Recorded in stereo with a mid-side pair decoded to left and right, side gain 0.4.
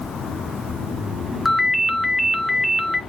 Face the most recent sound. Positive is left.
turn(degrees=15)